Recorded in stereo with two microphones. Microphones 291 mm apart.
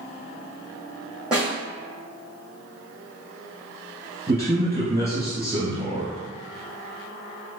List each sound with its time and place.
1.3 s a snare drum: 5° right (ahead or behind), 1.9 m
4.3 s a man speaking: 20° right (ahead or behind), 1.8 m